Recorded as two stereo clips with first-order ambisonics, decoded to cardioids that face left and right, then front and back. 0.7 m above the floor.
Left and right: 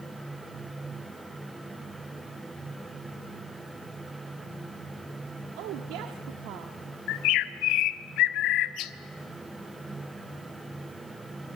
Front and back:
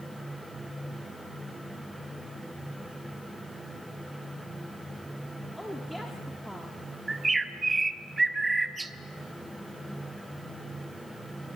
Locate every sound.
5.6 s a woman speaking: 90° right, 1.4 m
7.1 s a bird: 105° left, 0.7 m